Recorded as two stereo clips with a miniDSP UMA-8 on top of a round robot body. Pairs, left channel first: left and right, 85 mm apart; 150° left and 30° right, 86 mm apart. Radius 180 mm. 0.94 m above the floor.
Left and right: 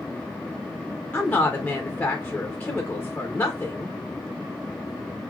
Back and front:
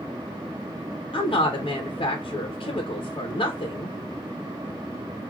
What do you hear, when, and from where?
1.1 s a woman speaking: 165° left, 0.7 m